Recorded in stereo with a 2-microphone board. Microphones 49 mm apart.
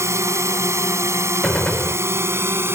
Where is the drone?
75° right (ahead or behind); by 2.8 s 60° right (ahead or behind).